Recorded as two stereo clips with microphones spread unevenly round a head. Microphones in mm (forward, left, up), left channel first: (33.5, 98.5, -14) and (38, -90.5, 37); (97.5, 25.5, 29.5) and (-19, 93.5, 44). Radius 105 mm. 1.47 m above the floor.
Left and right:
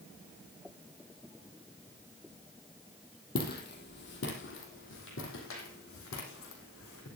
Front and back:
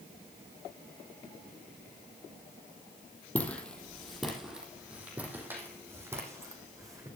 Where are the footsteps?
50° left, 3 m; by 7.1 s 90° left, 5 m.